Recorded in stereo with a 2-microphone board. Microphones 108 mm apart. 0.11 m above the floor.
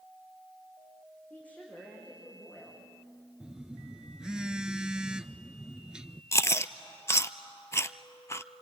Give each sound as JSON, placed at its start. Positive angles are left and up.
{"t": 1.3, "sound": "a woman speaking", "side_deg": 15, "distance_m": 7.0}
{"t": 3.4, "sound": "a phone buzzing", "side_deg": -10, "distance_m": 0.6}
{"t": 6.3, "sound": "chewing", "side_deg": 25, "distance_m": 0.6}